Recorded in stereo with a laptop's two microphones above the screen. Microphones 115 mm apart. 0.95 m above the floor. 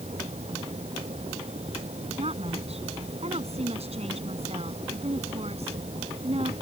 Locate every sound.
0.0 s a fan: 65° right (ahead or behind)
2.2 s a woman speaking: 65° right (ahead or behind)